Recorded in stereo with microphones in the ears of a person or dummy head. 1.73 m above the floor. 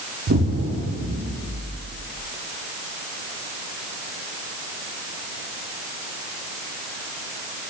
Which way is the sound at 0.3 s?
50° right (ahead or behind).